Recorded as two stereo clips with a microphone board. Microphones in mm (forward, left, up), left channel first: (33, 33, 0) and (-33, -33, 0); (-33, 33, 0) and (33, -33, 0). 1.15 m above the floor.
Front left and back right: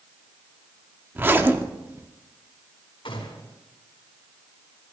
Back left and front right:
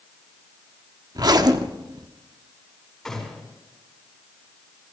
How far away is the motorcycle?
I don't hear a motorcycle.